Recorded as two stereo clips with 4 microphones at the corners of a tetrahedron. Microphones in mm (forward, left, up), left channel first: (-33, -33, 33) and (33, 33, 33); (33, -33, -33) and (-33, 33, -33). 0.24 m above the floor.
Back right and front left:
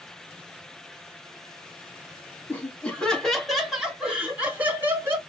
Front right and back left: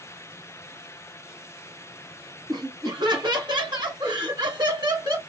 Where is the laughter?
160° left, 1.6 m; by 5.2 s 105° left, 2 m.